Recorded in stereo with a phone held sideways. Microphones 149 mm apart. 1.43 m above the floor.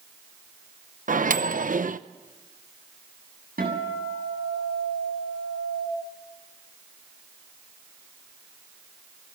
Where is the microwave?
65° right (ahead or behind), 0.8 m.